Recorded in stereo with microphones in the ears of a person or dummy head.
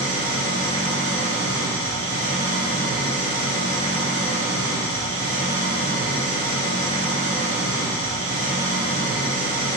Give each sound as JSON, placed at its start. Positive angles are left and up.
{"t": 0.0, "sound": "an engine running", "side_deg": -45, "distance_m": 0.9}